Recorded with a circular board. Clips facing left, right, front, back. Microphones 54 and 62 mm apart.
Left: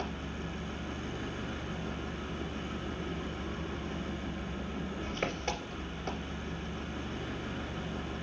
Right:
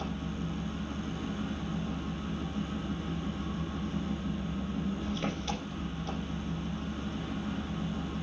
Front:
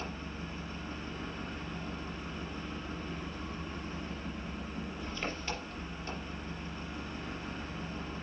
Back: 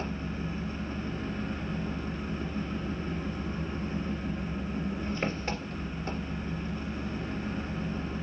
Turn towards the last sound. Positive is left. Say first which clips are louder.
# right 2 dB, back 6 dB
turn(degrees=140)